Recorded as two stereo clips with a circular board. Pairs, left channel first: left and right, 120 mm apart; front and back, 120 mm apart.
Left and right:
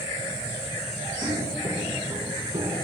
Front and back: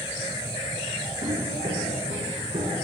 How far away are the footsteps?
About 4.5 m.